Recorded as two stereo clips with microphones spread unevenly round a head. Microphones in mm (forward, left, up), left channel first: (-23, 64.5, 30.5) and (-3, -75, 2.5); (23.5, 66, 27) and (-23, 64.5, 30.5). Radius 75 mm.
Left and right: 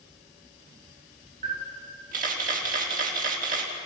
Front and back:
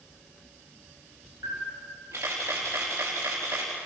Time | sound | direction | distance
1.4 | a camera shutter | 110° right | 4 m